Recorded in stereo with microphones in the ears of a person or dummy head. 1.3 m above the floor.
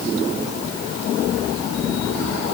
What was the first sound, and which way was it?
Only background noise.